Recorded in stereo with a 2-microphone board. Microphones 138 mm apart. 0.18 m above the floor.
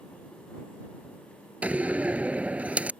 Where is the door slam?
10° right (ahead or behind).